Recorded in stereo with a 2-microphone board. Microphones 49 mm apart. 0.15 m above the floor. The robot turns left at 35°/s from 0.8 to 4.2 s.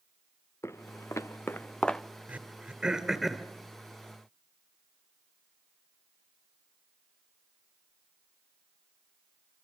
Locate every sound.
0.6 s footsteps: 70° left (ahead or behind), 0.9 m; by 2.0 s 5° left (ahead or behind), 0.8 m
2.3 s throat clearing: 35° right (ahead or behind), 2.0 m; by 3.5 s centre (ahead or behind), 2.0 m